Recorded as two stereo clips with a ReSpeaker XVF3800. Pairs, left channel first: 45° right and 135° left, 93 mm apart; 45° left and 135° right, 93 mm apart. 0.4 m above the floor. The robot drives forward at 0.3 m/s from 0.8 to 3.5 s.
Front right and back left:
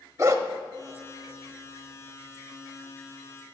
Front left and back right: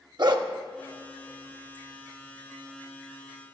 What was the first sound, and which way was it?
A dog barking, 170° right.